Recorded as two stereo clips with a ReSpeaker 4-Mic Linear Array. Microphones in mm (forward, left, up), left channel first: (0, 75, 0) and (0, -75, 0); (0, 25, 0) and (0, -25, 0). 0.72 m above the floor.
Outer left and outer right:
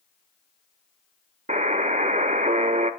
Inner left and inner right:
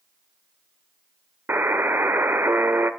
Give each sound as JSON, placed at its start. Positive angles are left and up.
{"t": 1.5, "sound": "a buzzer", "side_deg": -55, "distance_m": 0.6}